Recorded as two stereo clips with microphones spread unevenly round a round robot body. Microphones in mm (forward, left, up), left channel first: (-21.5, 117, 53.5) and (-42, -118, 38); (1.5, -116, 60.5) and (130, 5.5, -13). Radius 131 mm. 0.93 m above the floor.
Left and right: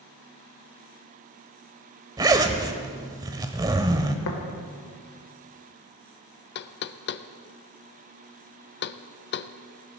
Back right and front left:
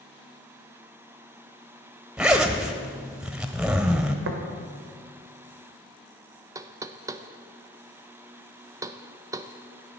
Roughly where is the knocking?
Left.